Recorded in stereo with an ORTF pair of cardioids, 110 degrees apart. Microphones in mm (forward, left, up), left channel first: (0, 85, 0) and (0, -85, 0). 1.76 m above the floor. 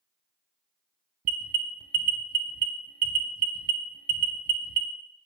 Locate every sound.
1.2 s an alarm: 55° right, 0.5 m